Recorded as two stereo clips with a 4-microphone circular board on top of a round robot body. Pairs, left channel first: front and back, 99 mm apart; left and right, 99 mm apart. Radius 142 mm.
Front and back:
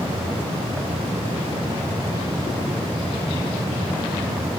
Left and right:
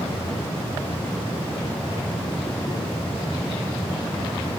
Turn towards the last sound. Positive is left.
No sound to turn to.